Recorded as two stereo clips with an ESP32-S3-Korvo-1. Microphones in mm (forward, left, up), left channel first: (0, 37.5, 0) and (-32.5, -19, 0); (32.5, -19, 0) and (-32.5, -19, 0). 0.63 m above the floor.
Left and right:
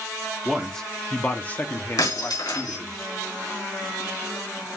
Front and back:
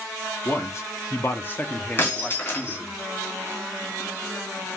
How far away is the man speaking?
About 1.7 m.